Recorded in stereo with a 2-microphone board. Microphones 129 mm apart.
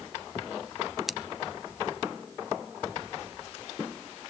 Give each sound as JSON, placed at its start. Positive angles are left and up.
{"t": 1.1, "sound": "scissors", "side_deg": 0, "distance_m": 0.6}